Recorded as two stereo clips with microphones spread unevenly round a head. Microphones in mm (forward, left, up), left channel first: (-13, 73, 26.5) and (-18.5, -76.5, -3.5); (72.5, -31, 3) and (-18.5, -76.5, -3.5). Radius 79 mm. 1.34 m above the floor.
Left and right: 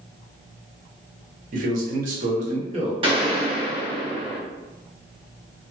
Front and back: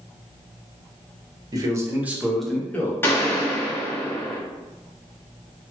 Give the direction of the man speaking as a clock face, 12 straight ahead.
4 o'clock.